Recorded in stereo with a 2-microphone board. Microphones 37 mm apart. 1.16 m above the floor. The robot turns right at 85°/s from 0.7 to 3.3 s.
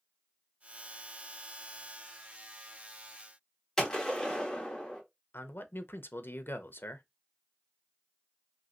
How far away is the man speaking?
About 0.6 m.